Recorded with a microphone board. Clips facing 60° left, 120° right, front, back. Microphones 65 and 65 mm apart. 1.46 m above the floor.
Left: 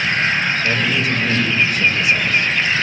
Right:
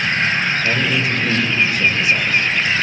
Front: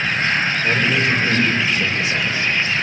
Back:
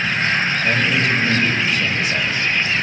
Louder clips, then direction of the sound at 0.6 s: Even, front 1 dB; 60° right.